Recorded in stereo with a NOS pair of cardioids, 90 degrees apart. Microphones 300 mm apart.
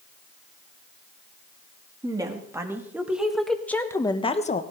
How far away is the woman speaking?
About 3 m.